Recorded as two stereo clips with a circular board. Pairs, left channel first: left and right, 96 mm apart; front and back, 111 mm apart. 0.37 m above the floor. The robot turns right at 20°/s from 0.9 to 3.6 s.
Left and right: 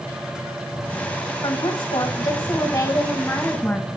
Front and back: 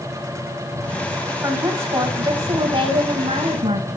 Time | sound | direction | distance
1.4 | a woman speaking | 120° left | 2.5 m